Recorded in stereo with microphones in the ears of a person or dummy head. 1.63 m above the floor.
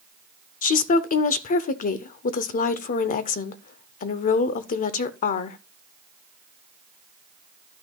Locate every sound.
0.6 s a woman speaking: 45° left (ahead or behind), 0.6 m